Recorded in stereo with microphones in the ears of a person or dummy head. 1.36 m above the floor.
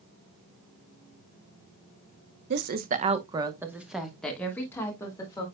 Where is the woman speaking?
55° right (ahead or behind), 1.1 m; by 5.5 s 20° left (ahead or behind), 2.5 m.